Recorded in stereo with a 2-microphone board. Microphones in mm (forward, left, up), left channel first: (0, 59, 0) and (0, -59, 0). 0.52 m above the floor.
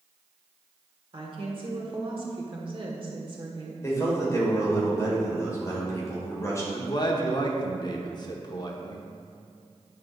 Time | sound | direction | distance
1.1 | a woman speaking | 45° right (ahead or behind) | 1.4 m
3.8 | a man speaking | 25° left (ahead or behind) | 2.5 m
6.7 | a man speaking | 40° left (ahead or behind) | 0.9 m